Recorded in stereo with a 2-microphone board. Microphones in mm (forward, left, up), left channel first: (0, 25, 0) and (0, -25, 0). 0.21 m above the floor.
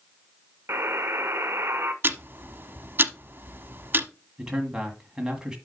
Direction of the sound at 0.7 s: 55° right (ahead or behind).